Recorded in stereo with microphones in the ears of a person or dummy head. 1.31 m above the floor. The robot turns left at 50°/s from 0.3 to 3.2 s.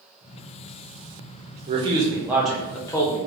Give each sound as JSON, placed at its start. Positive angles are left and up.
{"t": 1.7, "sound": "a man speaking", "azimuth_deg": -140, "distance_m": 0.6}